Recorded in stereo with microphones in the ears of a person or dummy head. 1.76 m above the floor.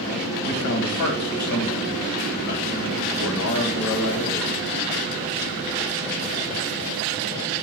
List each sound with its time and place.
0.4 s a man speaking: 70° left (ahead or behind), 1.7 m